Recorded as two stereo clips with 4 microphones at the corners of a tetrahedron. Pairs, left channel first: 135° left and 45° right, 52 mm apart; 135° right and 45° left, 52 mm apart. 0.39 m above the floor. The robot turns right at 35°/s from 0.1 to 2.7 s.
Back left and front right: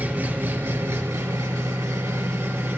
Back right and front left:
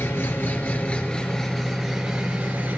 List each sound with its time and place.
0.0 s an engine running: 100° right, 2.5 m; by 2.8 s 10° right, 2.5 m